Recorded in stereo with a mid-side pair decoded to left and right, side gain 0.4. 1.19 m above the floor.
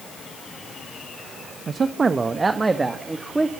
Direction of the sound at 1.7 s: 45° right.